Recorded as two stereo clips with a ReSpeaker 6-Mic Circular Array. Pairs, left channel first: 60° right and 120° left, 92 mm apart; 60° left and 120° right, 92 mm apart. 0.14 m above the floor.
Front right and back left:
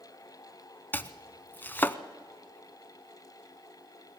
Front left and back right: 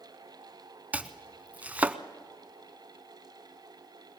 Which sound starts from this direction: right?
Chopping, at 0.9 s.